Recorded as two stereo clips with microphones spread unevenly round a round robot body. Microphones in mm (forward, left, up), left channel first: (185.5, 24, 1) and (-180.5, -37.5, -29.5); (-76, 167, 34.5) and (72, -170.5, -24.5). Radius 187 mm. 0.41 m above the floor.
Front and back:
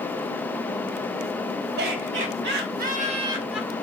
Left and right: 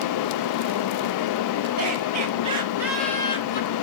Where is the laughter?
120° right, 2.5 m; by 3.7 s 105° left, 1.4 m.